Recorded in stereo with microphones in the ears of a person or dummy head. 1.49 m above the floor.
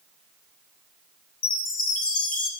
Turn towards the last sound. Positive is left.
turn(degrees=45)  # may be behind; listen again after turning